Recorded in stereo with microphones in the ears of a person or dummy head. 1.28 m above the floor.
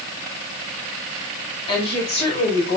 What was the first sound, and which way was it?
A woman speaking, 30° left (ahead or behind).